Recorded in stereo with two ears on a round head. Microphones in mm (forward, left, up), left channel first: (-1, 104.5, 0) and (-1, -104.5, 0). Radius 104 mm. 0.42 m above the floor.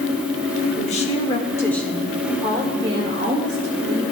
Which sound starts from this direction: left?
A woman speaking, at 0.8 s.